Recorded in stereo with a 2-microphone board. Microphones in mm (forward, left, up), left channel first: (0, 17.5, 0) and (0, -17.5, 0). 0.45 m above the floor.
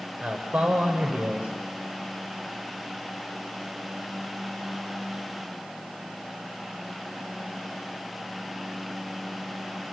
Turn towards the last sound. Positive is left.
turn(degrees=-40)  # may be behind; listen again after turning